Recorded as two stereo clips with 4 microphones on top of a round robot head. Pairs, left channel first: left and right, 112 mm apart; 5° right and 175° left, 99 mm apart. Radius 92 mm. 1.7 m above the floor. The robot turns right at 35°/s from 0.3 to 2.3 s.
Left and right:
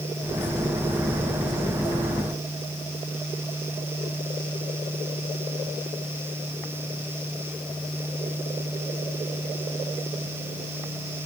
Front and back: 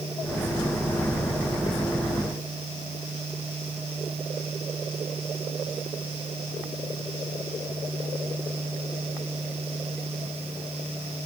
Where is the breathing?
I don't hear breathing.